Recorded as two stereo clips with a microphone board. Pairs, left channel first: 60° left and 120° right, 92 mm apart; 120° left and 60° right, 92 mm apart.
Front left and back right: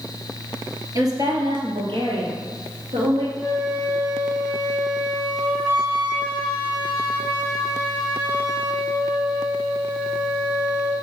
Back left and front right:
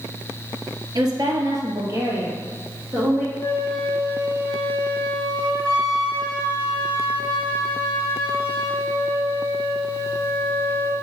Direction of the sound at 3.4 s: 160° right.